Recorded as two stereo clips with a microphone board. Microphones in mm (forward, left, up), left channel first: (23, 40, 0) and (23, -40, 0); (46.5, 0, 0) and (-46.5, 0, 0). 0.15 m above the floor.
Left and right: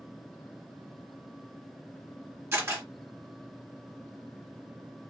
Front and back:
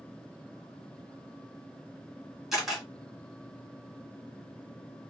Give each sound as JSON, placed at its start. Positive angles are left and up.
{"t": 2.5, "sound": "a camera shutter", "azimuth_deg": -100, "distance_m": 1.7}